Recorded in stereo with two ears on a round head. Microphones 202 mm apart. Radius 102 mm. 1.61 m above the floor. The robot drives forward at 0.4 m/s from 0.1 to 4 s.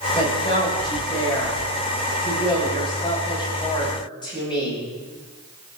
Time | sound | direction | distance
0.1 | a woman speaking | 25° left (ahead or behind) | 10 m